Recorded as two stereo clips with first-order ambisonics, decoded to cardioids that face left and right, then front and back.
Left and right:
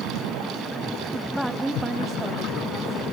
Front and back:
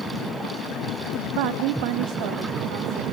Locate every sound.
1.4 s a woman speaking: 175° left, 0.5 m; by 3.0 s 165° right, 2.5 m